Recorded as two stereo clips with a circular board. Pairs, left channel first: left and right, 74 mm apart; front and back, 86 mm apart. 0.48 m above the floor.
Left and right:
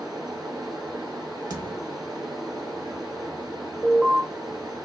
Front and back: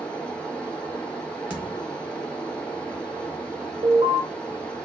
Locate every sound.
0.0 s running water: 80° right, 1.3 m
1.5 s a thud: 110° right, 1.1 m
3.8 s an alarm: 175° left, 0.8 m